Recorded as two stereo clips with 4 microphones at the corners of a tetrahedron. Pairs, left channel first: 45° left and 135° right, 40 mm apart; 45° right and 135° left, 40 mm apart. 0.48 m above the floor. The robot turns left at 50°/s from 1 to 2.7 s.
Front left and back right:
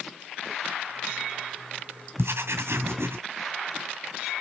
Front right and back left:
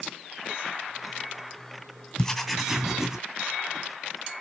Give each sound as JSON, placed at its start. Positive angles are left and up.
{"t": 2.2, "sound": "writing", "azimuth_deg": -120, "distance_m": 1.9}